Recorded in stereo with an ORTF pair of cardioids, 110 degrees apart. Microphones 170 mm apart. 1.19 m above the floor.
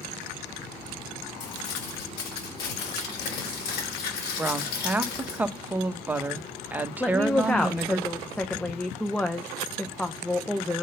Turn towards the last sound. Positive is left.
turn(degrees=5)